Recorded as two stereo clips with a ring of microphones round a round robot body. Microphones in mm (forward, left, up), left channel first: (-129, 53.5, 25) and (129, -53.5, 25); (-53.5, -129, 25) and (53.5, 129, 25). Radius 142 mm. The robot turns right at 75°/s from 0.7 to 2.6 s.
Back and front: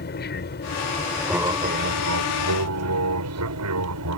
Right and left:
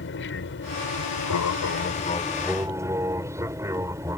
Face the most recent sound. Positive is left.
turn(degrees=-10)